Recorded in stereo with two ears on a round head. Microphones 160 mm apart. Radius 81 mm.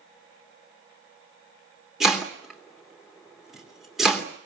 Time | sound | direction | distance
2.0 | chopping | centre (ahead or behind) | 3 m